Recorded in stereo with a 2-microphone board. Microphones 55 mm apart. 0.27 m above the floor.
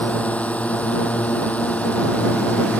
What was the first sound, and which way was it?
A drone, 25° left (ahead or behind).